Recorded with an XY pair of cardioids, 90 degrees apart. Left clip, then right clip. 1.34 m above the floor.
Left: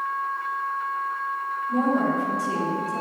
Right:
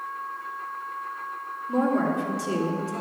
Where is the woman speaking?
65° right, 3.5 m.